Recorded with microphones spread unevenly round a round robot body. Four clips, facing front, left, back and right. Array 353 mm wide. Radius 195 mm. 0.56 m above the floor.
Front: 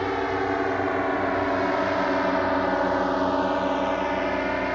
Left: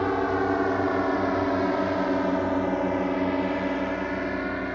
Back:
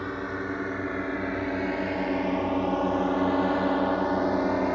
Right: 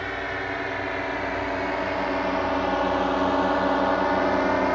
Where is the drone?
85° left; by 4.8 s 140° right.